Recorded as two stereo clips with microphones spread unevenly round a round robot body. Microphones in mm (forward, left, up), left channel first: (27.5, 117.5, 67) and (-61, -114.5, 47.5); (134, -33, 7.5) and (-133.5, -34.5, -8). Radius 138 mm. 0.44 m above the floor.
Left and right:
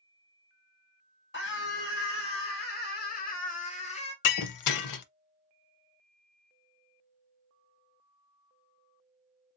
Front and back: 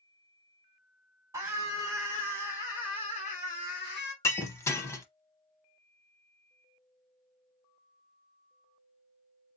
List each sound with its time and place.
1.3 s a scream: 105° left, 1.8 m; by 4.1 s 15° left, 1.5 m
4.2 s breaking glass: 80° left, 0.6 m